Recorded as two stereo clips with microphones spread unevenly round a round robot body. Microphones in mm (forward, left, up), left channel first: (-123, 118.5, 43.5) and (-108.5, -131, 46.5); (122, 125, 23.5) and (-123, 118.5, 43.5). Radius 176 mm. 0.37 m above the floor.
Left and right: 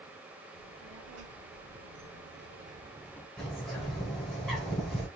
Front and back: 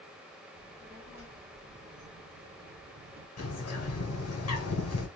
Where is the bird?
5° left, 1.9 m.